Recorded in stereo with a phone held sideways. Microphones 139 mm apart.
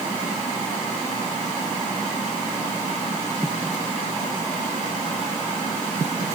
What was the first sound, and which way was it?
Only background noise.